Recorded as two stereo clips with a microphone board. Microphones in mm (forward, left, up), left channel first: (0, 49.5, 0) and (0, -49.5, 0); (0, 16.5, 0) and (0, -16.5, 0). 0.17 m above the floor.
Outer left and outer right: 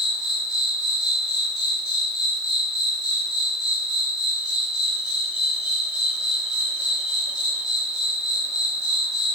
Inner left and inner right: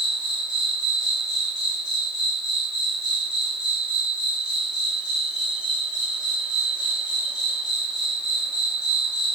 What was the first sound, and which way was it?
An insect, 10° right (ahead or behind).